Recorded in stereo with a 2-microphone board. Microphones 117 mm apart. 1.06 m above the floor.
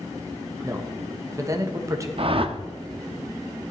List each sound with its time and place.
0.6 s a man speaking: 30° right (ahead or behind), 1.1 m
2.2 s a whoosh: 50° right (ahead or behind), 0.7 m